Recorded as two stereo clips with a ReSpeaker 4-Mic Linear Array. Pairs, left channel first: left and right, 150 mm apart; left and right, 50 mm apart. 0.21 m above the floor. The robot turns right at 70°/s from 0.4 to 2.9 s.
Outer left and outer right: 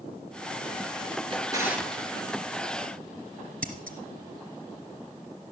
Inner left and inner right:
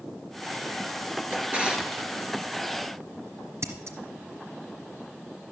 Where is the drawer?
40° right (ahead or behind), 2 m; by 2.0 s 10° left (ahead or behind), 2 m.